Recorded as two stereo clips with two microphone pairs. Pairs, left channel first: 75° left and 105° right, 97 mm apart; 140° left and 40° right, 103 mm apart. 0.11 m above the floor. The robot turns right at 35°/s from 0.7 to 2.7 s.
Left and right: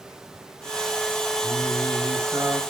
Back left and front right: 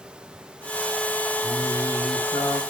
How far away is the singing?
About 5.5 m.